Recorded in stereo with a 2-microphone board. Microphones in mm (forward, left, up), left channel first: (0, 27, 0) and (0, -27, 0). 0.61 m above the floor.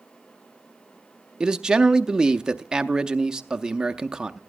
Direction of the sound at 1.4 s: 15° right (ahead or behind).